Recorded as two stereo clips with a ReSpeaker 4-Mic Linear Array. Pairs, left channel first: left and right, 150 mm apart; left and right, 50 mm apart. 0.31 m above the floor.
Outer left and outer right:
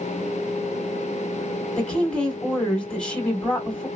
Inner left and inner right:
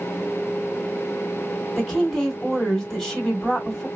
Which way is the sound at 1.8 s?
10° left (ahead or behind).